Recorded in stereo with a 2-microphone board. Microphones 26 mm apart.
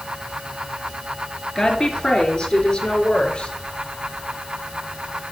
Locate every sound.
1.6 s a woman speaking: 25° left (ahead or behind), 3.5 m; by 3.5 s 40° left (ahead or behind), 3.5 m